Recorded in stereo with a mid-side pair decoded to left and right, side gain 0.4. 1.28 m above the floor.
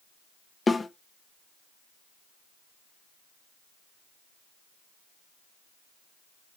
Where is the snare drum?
30° left, 0.9 m.